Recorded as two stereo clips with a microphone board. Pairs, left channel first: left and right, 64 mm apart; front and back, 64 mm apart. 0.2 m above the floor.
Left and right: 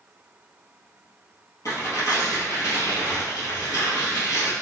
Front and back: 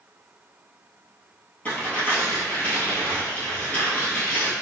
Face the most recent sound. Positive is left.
turn(degrees=65)